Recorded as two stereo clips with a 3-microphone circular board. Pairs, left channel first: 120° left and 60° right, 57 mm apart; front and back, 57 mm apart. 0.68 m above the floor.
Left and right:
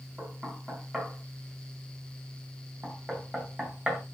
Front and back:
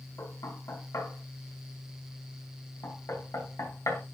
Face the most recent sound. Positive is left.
turn(degrees=15)